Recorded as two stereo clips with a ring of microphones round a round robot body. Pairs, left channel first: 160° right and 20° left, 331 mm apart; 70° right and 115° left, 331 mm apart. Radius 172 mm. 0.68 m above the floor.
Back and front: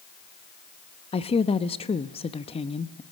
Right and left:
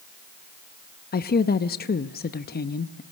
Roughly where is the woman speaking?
Right.